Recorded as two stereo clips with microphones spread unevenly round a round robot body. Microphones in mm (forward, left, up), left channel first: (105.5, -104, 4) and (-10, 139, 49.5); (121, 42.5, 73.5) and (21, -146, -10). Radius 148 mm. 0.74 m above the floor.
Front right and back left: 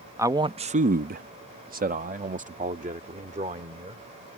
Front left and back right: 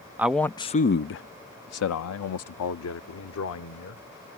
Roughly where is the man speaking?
Behind right.